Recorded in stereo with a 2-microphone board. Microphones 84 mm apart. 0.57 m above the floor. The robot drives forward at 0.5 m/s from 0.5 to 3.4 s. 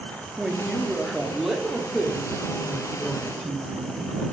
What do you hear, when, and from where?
0.4 s a woman speaking: 5° right (ahead or behind), 1.0 m; by 4.2 s centre (ahead or behind), 2 m